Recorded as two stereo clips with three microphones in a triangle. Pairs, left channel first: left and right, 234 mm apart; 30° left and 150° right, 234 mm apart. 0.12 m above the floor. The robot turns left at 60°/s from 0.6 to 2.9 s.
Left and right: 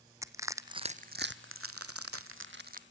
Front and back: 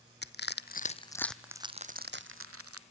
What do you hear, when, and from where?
0.2 s crushing: 15° right, 0.8 m; by 2.8 s 145° right, 0.8 m